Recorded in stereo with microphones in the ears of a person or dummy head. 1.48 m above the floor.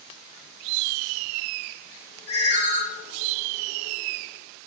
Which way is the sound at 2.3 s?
55° left (ahead or behind).